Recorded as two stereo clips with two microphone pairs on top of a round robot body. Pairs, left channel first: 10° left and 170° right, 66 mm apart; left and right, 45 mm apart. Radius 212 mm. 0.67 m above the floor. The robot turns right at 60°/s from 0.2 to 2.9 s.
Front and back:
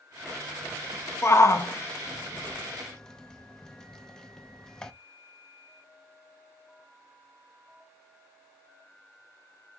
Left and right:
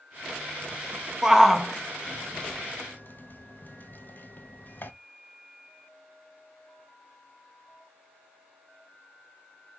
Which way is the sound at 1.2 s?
15° right.